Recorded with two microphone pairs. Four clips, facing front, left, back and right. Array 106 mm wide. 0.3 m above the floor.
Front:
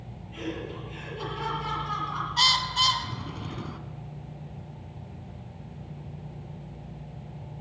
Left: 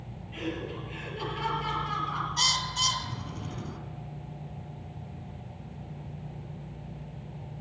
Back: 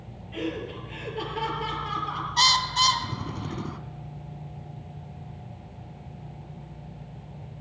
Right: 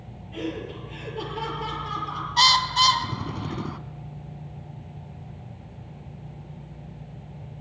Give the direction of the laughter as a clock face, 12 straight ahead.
5 o'clock.